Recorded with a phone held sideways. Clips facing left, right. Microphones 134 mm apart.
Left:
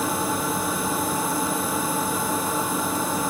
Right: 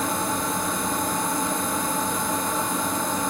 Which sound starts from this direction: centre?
A machine running, at 0.0 s.